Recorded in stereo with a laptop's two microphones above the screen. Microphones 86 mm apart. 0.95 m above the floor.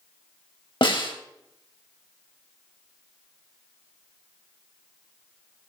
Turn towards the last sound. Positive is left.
turn(degrees=75)  # may be behind; listen again after turning